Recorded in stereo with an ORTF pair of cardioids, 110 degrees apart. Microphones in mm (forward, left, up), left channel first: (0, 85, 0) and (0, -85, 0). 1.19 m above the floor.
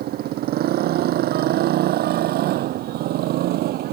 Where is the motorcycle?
65° right; by 3.9 s 70° right.